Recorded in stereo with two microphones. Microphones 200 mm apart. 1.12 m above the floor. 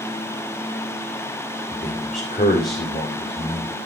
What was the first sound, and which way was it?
A man speaking, 45° left (ahead or behind).